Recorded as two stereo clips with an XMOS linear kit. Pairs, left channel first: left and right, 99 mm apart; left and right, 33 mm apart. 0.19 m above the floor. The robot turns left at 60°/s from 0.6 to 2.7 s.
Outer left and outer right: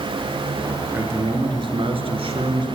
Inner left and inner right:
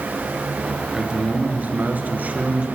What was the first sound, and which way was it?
A man speaking, 20° right.